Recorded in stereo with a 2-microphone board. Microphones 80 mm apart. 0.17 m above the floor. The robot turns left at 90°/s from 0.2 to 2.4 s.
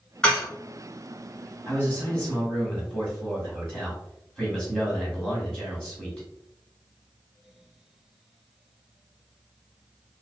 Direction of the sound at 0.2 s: 10° left (ahead or behind).